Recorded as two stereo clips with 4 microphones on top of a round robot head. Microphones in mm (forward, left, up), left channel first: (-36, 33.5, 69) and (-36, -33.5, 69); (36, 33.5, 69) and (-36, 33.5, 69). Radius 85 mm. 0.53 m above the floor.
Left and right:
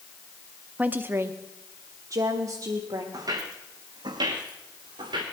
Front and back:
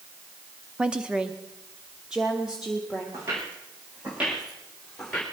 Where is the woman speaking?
125° right, 0.7 m; by 3.0 s 100° right, 1.7 m.